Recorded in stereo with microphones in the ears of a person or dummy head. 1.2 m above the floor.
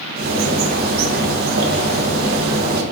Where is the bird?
50° right (ahead or behind), 0.6 m.